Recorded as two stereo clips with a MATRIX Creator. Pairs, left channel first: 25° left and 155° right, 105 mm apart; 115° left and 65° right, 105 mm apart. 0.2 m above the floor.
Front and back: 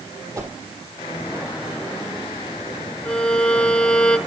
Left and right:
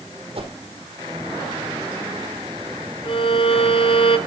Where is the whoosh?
100° right, 3.5 m.